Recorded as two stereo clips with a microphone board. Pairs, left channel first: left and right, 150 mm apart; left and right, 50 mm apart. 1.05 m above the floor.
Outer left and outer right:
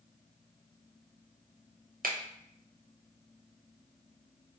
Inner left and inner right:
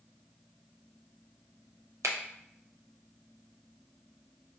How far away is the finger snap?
About 0.5 m.